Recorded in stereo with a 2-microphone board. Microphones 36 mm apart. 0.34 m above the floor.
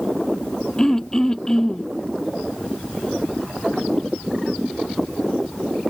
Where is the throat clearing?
15° left (ahead or behind).